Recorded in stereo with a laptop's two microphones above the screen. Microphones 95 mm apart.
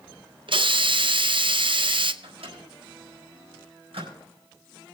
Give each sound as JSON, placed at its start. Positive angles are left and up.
{"t": 0.5, "sound": "a hiss", "side_deg": -60, "distance_m": 0.5}
{"t": 2.2, "sound": "a microwave", "side_deg": -85, "distance_m": 4.0}